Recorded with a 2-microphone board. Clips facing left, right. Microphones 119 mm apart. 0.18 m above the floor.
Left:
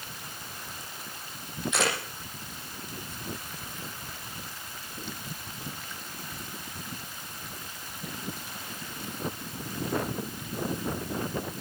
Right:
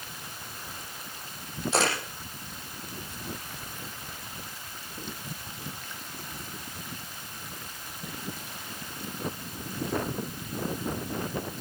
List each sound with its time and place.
1.7 s a camera shutter: 30° right (ahead or behind), 8.5 m